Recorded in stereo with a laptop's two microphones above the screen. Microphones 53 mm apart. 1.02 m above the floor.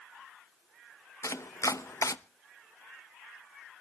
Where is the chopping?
80° left, 0.6 m.